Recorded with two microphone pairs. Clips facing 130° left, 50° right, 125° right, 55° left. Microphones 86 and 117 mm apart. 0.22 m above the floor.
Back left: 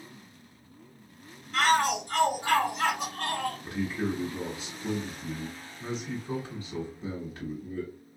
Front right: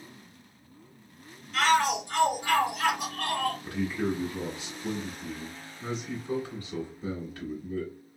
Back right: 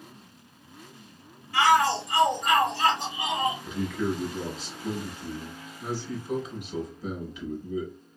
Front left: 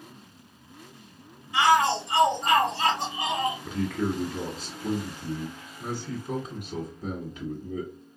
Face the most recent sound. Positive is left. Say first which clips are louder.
# front right 1 dB, front left 1 dB
turn(degrees=65)